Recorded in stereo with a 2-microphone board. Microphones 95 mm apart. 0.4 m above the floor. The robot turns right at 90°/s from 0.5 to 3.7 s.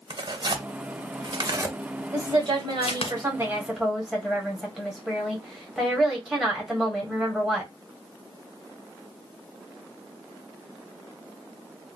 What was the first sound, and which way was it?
Tearing paper, 50° right (ahead or behind).